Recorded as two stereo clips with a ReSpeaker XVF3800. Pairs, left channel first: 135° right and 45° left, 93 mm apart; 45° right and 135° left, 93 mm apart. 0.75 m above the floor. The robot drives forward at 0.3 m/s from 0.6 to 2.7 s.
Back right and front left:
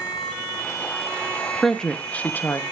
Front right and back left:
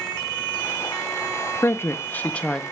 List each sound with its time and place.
1.6 s a woman speaking: 55° right, 0.6 m; by 2.6 s 115° right, 0.6 m